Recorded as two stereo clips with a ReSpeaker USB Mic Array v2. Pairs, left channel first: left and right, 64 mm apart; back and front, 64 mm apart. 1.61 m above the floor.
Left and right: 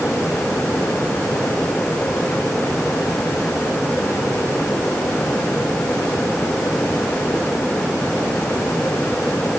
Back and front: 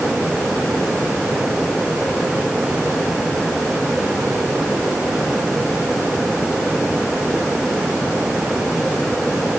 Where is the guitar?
No guitar in this recording.